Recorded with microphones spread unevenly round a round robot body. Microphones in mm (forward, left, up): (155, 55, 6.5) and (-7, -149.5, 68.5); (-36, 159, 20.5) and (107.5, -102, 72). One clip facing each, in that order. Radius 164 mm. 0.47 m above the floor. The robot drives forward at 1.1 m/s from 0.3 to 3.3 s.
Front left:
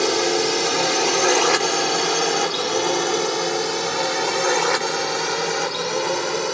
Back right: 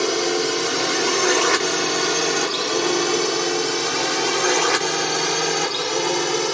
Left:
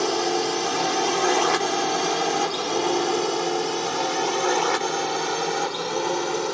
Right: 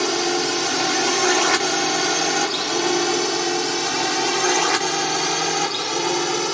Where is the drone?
45° right; by 6.5 s 95° right.